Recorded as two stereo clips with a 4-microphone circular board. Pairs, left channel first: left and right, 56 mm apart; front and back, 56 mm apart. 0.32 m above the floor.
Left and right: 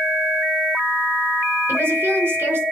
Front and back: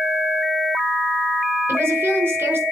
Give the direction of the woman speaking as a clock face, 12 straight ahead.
5 o'clock.